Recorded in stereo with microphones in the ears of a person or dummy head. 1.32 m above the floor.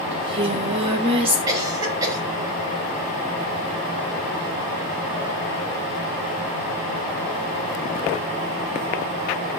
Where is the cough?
20° right (ahead or behind), 5.5 m.